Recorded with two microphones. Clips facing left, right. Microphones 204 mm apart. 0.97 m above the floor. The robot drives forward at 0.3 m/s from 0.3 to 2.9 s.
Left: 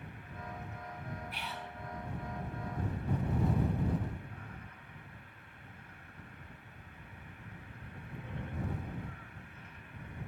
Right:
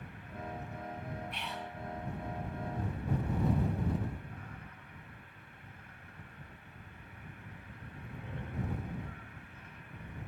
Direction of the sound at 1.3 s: 5° left (ahead or behind).